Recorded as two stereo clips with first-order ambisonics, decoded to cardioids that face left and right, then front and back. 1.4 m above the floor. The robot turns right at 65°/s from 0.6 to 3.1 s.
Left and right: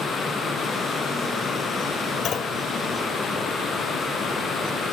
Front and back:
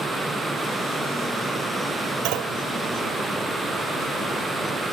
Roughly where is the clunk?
Behind left.